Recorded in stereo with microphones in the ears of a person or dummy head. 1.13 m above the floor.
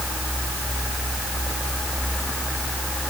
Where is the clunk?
No clunk in this recording.